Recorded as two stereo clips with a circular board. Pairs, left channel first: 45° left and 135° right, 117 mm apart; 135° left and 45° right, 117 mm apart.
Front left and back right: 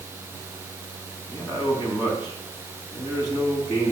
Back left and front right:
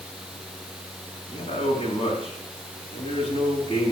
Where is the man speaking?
100° left, 4.5 m; by 3.9 s 95° left, 6.5 m.